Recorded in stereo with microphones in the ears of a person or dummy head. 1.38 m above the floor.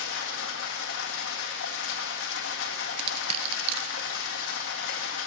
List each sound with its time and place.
0.0 s running water: 80° left, 1.6 m
3.0 s crushing: 35° right (ahead or behind), 0.5 m